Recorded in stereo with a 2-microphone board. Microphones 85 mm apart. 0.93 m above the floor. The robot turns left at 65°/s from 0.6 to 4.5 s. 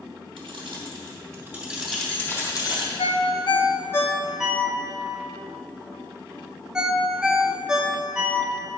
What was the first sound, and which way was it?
Keys jangling, 85° right.